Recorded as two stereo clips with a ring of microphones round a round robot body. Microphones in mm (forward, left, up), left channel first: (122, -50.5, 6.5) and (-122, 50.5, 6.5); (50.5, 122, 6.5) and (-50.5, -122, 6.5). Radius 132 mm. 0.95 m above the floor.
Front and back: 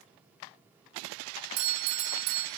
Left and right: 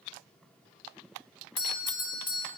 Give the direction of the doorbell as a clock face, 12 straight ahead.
7 o'clock.